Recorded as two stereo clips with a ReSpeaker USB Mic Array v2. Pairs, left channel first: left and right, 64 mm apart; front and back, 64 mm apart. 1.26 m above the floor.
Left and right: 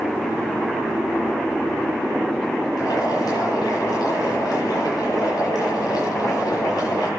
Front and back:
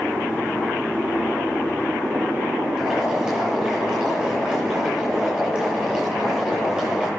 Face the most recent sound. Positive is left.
turn(degrees=100)